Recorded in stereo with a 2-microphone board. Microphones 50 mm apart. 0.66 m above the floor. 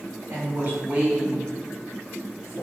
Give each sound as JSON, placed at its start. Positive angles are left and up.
{"t": 0.3, "sound": "a woman speaking", "side_deg": -45, "distance_m": 1.2}